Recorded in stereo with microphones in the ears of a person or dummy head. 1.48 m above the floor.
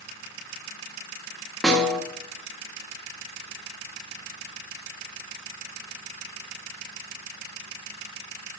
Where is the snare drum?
Centre (ahead or behind), 1.5 m.